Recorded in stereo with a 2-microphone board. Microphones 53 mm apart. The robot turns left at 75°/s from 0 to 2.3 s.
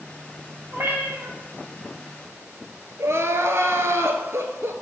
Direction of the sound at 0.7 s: 45° right.